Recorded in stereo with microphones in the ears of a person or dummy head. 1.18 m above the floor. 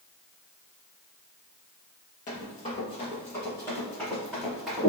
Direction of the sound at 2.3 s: 30° left (ahead or behind).